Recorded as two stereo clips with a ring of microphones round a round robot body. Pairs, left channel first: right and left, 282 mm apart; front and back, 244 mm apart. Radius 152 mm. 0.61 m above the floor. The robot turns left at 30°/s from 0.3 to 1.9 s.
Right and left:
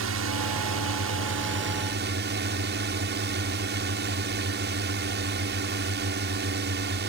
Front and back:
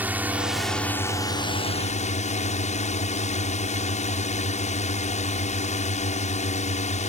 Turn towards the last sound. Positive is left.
turn(degrees=50)